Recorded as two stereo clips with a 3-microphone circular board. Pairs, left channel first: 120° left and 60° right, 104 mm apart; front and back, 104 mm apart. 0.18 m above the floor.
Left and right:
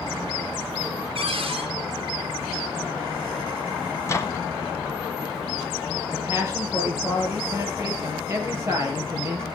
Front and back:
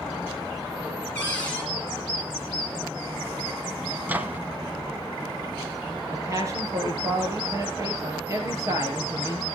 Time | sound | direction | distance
1.1 | a cupboard door | 75° right | 3.5 m
4.0 | a microwave | 130° left | 1.3 m
6.1 | a man speaking | 120° right | 4.5 m